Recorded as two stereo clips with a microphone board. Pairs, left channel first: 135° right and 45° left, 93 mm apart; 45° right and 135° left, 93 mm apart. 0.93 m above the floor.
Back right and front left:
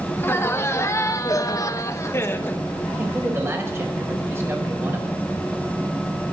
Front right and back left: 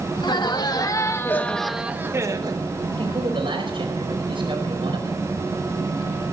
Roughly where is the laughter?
Right.